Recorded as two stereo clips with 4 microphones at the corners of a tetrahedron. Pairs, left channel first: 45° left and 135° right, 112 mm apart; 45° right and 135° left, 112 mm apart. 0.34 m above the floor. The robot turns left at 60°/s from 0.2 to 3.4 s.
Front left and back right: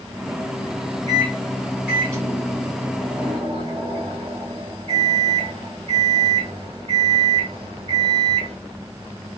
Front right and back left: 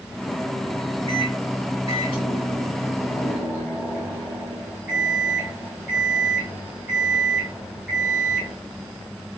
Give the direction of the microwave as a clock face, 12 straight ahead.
12 o'clock.